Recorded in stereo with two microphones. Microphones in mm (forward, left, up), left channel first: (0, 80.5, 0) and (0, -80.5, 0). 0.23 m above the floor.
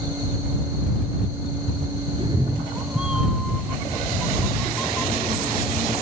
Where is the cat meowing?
40° right (ahead or behind); by 5.9 s 5° left (ahead or behind).